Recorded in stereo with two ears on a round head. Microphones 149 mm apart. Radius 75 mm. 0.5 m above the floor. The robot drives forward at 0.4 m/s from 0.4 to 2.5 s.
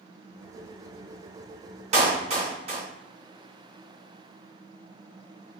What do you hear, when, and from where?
1.9 s a clap: 40° right (ahead or behind), 2.5 m; by 2.8 s 35° right (ahead or behind), 2.5 m